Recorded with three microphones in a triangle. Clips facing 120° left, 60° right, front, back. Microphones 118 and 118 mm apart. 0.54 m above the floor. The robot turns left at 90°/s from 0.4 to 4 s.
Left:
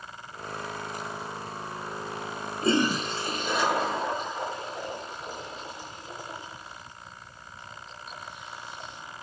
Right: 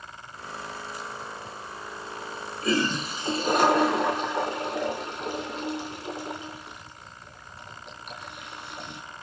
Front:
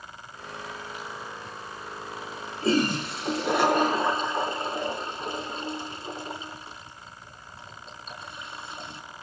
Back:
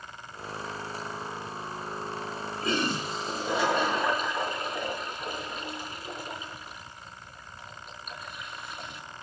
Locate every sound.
2.6 s a toilet flushing: 65° left, 4 m; by 9.0 s 60° right, 4 m